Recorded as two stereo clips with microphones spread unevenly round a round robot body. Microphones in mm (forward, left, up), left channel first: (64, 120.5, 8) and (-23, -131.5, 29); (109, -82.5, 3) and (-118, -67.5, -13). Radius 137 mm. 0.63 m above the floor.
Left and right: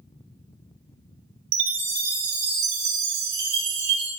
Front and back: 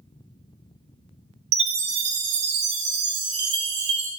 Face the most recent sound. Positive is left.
turn(degrees=-160)